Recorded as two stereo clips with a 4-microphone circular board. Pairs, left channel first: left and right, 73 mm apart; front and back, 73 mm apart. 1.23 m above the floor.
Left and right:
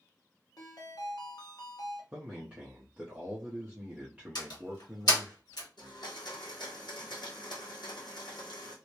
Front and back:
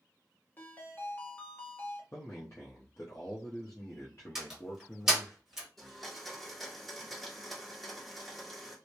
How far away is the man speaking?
About 0.6 m.